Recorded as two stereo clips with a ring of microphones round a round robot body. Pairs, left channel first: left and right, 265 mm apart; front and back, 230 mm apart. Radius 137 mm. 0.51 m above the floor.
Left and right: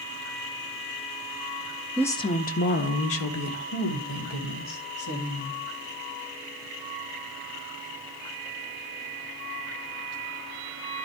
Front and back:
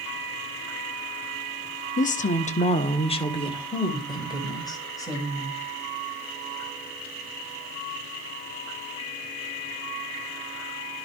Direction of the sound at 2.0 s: 5° left.